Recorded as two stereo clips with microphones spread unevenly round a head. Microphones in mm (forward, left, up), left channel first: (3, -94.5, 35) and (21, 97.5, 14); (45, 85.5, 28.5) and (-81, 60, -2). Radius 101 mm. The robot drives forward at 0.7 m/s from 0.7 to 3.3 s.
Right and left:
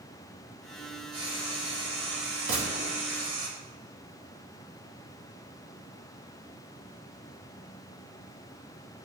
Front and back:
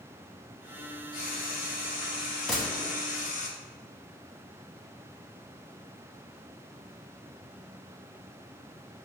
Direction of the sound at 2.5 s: 90° left.